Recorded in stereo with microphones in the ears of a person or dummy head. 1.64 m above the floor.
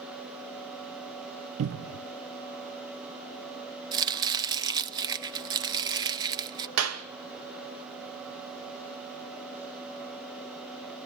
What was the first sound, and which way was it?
A cupboard door, 70° right (ahead or behind).